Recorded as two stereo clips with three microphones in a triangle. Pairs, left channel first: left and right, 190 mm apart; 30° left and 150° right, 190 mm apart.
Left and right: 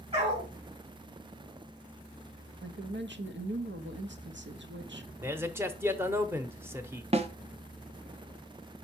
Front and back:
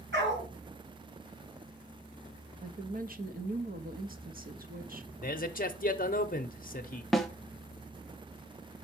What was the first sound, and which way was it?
A dog barking, 150° right.